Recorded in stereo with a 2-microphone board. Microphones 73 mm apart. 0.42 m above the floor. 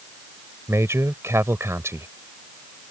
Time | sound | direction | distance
0.7 | a man speaking | 40° right (ahead or behind) | ?